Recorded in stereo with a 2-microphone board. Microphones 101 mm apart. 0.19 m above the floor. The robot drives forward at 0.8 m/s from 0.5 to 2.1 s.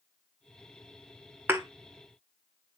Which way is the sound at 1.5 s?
20° right (ahead or behind).